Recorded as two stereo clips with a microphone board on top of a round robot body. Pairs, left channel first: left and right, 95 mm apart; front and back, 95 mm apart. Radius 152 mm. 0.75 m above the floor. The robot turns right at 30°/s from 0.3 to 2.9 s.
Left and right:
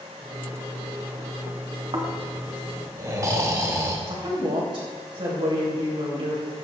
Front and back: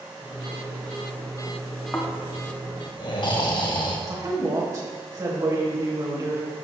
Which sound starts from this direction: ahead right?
Snoring, at 1.9 s.